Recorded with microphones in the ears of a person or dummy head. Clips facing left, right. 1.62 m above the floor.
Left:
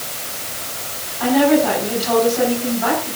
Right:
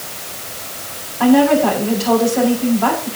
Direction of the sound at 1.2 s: 65° right (ahead or behind).